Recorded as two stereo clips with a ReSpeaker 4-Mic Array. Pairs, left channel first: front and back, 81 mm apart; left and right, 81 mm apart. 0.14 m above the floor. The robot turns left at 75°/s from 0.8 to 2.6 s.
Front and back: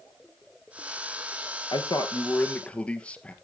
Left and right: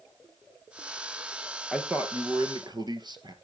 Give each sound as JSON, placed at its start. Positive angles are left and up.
{"t": 1.7, "sound": "a man speaking", "azimuth_deg": -5, "distance_m": 2.5}